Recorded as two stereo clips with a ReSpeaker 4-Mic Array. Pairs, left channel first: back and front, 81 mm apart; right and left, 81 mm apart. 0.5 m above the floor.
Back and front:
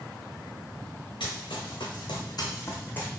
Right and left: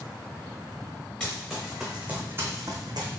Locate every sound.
1.2 s running footsteps: 170° right, 1.8 m; by 3.1 s 105° left, 1.2 m